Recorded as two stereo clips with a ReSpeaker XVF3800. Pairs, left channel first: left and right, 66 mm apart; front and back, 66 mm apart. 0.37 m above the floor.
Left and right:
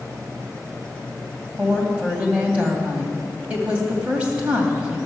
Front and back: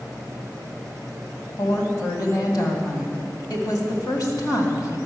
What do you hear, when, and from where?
1.6 s a woman speaking: 20° right, 2 m